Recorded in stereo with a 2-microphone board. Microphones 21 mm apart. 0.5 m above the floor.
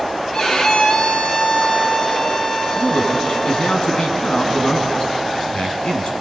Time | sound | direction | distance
0.3 | a violin | 30° left (ahead or behind) | 1.8 m
2.8 | a man speaking | 55° left (ahead or behind) | 4 m